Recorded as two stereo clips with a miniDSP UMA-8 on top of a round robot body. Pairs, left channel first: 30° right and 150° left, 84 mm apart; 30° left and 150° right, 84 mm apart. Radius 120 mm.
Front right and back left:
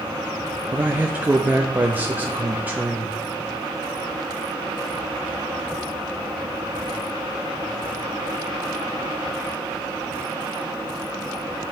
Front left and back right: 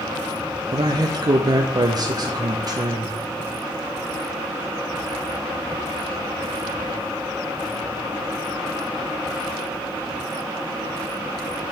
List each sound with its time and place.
0.7 s a man speaking: 145° right, 0.9 m